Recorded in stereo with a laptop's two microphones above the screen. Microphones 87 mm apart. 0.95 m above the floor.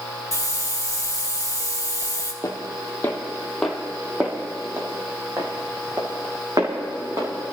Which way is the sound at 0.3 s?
35° left (ahead or behind).